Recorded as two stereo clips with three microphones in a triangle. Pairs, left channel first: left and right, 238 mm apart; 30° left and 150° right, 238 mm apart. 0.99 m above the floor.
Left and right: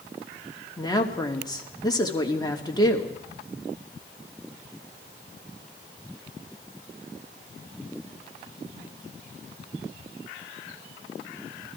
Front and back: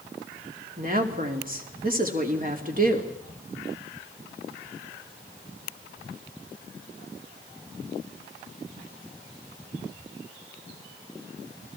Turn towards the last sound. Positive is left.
turn(degrees=160)